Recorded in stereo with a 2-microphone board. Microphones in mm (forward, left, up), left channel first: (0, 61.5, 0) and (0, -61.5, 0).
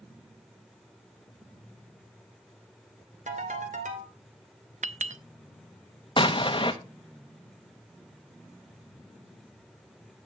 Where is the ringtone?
80° right, 2 m.